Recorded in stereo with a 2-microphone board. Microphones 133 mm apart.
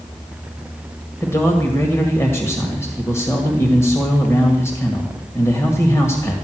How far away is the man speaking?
About 1.8 m.